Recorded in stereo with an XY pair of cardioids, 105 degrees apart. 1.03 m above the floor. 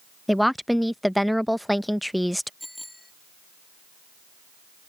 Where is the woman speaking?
5° left.